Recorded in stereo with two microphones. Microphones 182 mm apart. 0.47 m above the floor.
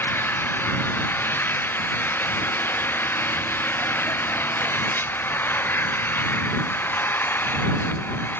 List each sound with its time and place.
0.0 s an engine running: 10° left (ahead or behind)